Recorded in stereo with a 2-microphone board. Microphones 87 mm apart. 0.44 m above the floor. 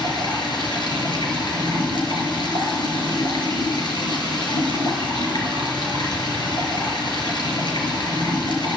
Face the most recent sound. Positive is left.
turn(degrees=60)  # may be behind; listen again after turning